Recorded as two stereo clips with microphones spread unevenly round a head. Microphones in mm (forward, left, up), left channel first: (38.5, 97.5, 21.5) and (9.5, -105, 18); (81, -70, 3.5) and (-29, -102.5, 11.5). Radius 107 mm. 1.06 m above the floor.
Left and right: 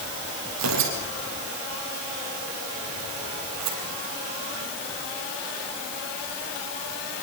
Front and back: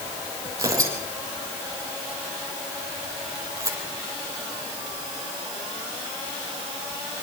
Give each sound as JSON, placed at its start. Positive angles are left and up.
{"t": 0.6, "sound": "tearing paper", "azimuth_deg": -105, "distance_m": 6.5}